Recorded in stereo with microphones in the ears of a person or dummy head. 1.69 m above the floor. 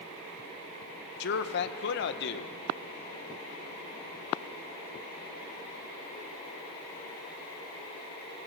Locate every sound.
1.2 s a man speaking: 60° left (ahead or behind), 1.5 m